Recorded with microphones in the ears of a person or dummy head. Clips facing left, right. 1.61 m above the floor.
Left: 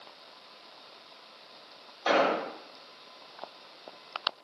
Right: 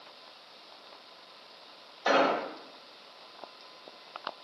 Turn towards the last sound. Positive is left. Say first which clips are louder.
# even
turn(degrees=-15)  # may be behind; listen again after turning